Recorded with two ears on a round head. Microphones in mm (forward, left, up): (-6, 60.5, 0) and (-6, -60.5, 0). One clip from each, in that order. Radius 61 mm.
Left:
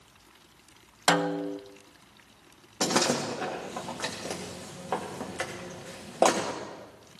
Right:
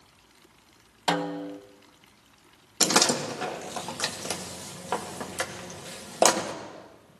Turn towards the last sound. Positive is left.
turn(degrees=-65)  # may be behind; listen again after turning